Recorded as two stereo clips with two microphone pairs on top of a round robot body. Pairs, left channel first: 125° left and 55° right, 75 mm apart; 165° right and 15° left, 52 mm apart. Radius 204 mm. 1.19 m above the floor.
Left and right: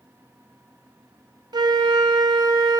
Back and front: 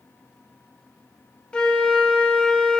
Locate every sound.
1.5 s a flute: 90° right, 0.8 m